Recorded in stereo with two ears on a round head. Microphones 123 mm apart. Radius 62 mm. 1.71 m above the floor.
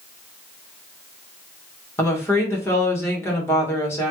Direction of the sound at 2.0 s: 20° left (ahead or behind).